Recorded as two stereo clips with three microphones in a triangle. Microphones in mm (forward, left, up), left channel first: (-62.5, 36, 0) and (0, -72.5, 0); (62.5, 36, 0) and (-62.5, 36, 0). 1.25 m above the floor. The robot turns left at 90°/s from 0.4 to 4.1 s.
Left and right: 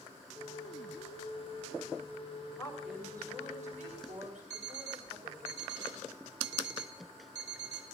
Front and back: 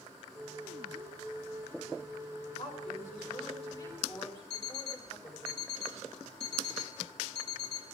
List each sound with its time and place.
2.6 s a woman speaking: 50° left, 6 m; by 5.5 s 85° right, 6 m
4.5 s an alarm clock: 150° left, 2.5 m